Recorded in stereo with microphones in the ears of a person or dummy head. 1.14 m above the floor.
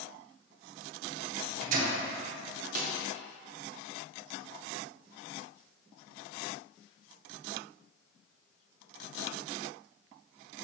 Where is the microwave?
50° right (ahead or behind), 0.7 m.